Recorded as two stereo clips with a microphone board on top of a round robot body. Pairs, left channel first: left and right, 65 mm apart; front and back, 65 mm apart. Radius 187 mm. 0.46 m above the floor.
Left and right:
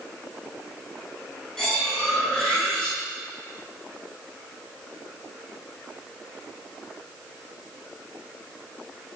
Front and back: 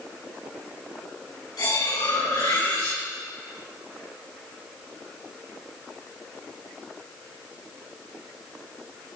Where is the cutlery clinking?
10° left, 6 m.